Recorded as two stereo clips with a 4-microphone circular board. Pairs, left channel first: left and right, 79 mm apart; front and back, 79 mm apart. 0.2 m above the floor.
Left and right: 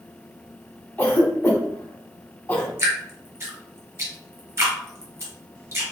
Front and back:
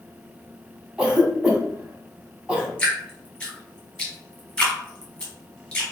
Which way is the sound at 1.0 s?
115° left.